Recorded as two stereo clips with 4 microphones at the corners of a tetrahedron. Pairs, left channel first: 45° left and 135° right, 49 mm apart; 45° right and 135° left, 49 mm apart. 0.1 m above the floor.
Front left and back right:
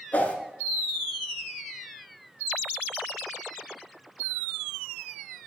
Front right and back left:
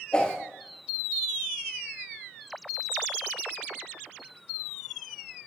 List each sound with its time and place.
0.1 s a whoosh: 10° left, 1.1 m